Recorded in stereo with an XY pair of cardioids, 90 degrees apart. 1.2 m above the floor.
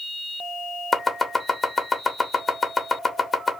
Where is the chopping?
30° left, 1.1 m.